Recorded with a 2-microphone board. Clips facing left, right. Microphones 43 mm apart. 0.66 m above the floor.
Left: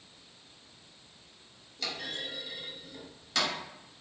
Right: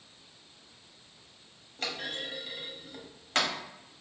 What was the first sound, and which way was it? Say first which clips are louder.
A clunk: right 1 dB; 50° right (ahead or behind).